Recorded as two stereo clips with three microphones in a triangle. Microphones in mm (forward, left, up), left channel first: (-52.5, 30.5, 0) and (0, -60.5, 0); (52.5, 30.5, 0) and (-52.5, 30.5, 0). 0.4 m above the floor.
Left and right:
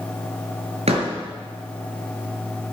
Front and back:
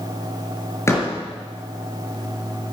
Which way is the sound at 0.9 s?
65° right.